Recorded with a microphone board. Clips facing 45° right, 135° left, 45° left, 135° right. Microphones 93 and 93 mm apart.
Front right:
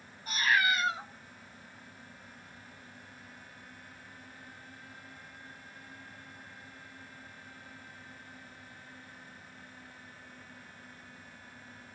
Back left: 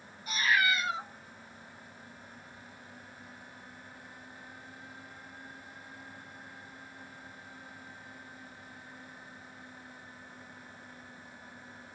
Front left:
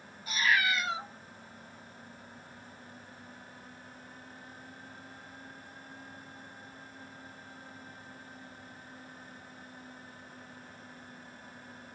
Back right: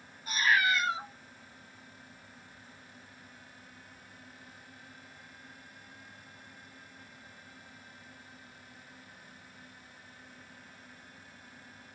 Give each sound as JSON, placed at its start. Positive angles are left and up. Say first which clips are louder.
{"t": 0.3, "sound": "a cat meowing", "louder": "even, back right 1 dB", "azimuth_deg": -85, "distance_m": 1.7}